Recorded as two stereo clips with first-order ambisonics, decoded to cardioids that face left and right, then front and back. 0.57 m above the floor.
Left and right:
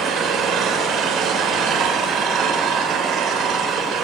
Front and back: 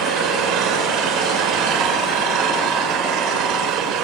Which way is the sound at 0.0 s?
140° right.